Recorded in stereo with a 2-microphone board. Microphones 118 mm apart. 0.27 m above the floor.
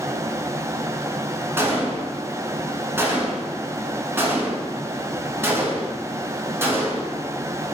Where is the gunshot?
20° right (ahead or behind), 0.9 m.